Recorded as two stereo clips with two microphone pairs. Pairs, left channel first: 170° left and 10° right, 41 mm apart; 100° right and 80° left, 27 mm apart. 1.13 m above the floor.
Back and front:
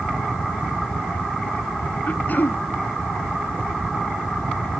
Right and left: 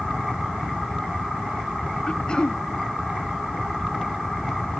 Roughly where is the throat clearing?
Behind right.